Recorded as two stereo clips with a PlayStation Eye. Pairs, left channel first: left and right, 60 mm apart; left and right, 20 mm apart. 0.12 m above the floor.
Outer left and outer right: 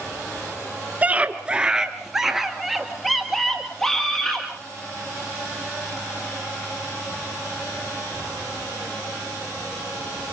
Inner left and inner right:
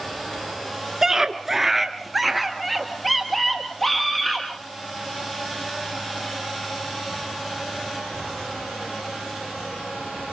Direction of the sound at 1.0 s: 25° right (ahead or behind).